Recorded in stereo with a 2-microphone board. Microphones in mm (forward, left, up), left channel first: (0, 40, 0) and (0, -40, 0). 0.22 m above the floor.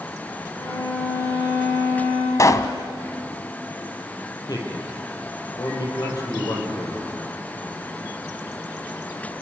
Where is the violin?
55° left (ahead or behind), 7 m.